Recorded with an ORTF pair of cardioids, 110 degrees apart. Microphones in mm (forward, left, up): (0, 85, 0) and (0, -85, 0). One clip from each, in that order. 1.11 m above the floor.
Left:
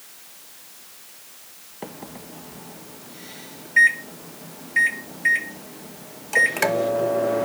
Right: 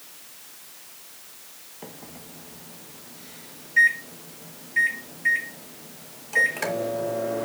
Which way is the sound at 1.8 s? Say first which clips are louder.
Left 6 dB; 35° left.